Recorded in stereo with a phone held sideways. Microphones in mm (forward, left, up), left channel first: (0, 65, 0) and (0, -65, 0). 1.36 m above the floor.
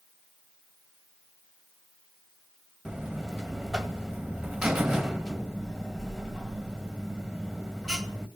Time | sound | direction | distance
2.9 | a buzzer | 5° right (ahead or behind) | 2 m